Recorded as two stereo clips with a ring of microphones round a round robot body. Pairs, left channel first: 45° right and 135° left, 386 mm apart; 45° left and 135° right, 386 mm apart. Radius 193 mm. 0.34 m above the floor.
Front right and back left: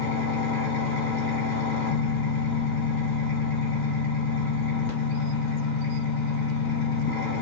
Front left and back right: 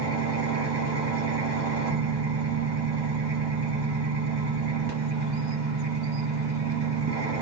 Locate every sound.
0.0 s an engine running: 65° right, 1.7 m